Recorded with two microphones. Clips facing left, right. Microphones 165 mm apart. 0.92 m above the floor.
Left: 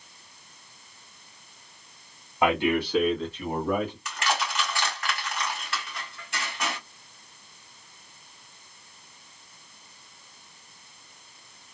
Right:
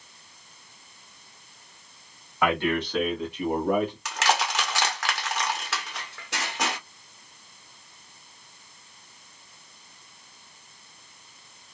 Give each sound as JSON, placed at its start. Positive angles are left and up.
{"t": 2.4, "sound": "a man speaking", "side_deg": 25, "distance_m": 1.8}
{"t": 4.0, "sound": "crushing", "side_deg": -85, "distance_m": 1.1}